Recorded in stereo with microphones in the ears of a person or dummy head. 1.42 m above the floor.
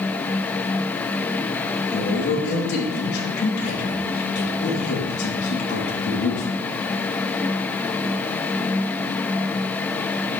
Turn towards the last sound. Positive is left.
turn(degrees=60)  # may be behind; listen again after turning